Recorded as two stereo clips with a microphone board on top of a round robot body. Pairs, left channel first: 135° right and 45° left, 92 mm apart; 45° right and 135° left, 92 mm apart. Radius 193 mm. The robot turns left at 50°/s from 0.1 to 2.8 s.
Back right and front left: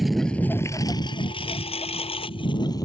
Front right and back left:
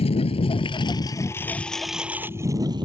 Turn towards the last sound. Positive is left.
turn(degrees=175)